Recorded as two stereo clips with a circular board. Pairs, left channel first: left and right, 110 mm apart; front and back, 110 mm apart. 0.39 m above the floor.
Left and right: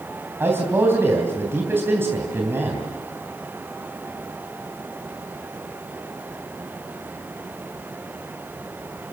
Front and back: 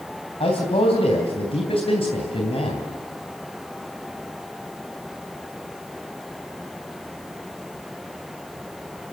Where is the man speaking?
20° right, 3 m.